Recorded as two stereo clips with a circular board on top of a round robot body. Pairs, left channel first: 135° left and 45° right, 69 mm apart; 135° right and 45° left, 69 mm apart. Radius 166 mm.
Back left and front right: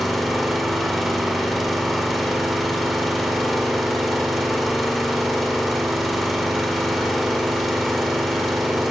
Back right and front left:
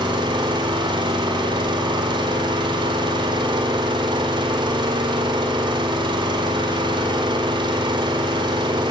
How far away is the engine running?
About 1.7 m.